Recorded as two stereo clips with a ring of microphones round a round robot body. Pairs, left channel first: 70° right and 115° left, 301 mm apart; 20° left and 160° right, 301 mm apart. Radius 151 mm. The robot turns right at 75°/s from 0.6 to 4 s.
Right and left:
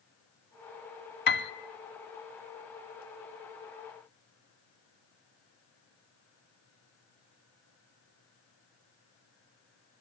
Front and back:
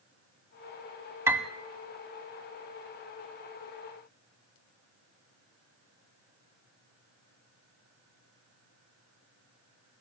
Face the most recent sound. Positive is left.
turn(degrees=120)